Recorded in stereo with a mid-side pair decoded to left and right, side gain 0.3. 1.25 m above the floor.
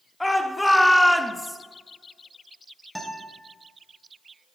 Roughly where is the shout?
Ahead.